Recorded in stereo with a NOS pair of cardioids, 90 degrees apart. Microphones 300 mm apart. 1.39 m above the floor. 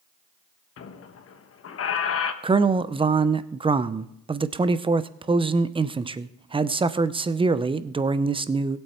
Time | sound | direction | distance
0.8 | a squeak | 50° left | 1.1 m
2.4 | a man speaking | 20° right | 0.6 m